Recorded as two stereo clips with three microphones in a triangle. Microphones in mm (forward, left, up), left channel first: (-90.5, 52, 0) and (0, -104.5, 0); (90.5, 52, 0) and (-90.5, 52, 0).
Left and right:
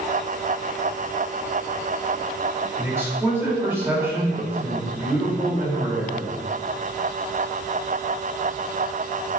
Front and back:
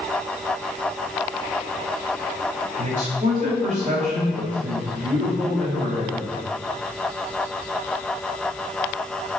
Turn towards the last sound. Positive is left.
turn(degrees=-135)